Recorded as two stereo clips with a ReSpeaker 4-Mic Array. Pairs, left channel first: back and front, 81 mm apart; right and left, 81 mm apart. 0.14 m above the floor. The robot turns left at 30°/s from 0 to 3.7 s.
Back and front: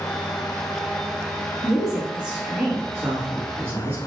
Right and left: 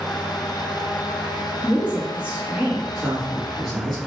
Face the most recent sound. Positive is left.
turn(degrees=-10)